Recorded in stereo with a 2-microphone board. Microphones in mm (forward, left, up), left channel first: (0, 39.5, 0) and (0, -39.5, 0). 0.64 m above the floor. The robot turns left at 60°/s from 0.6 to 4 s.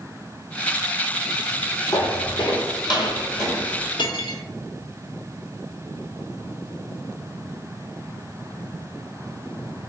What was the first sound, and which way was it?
Footsteps, 60° left (ahead or behind).